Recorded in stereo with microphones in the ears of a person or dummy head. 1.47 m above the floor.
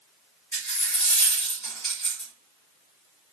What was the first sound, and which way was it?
A dropped coin, centre (ahead or behind).